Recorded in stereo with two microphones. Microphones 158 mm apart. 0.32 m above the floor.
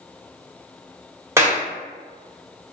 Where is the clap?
15° right (ahead or behind), 0.8 m.